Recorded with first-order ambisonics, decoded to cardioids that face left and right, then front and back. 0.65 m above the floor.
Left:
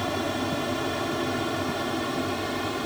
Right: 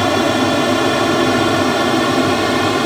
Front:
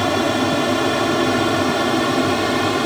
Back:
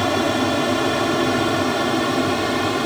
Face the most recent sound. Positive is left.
turn(degrees=-80)